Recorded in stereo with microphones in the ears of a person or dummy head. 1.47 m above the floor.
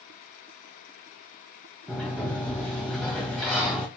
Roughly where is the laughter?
I don't hear laughter.